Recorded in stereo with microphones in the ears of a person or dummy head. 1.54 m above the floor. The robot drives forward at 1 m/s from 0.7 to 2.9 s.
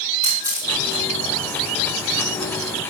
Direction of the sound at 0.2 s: 15° right (ahead or behind).